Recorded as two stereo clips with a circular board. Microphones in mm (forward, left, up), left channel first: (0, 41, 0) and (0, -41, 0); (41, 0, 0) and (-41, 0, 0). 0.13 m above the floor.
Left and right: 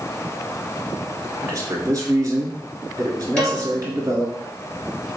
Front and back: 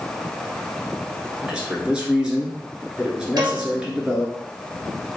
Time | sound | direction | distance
1.4 | a man speaking | 105° right | 1.5 m
3.4 | a piano | 160° left | 2.0 m